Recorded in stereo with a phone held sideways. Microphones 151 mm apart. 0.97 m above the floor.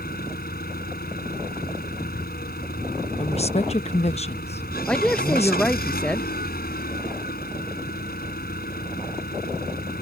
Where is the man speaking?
5° left (ahead or behind).